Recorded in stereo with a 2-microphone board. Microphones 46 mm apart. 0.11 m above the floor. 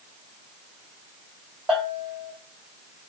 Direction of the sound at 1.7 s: 15° right (ahead or behind).